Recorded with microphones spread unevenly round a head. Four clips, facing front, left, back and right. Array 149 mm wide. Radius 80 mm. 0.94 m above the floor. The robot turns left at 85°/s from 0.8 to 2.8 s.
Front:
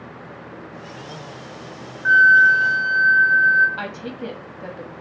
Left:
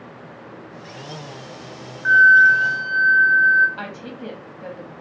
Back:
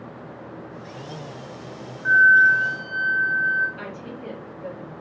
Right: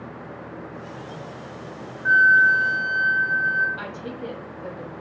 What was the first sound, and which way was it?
A flute, 70° left.